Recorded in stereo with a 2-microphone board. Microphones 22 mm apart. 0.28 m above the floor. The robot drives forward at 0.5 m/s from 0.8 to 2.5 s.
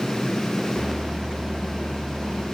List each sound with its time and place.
Only background noise.